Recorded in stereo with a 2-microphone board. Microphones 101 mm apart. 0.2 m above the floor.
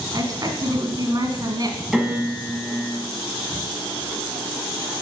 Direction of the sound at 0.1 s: 40° right (ahead or behind).